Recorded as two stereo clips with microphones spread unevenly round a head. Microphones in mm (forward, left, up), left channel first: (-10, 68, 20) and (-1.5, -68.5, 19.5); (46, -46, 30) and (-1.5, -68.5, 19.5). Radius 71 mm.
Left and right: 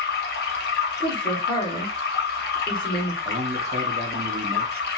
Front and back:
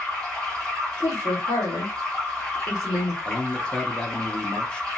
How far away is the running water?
About 0.7 m.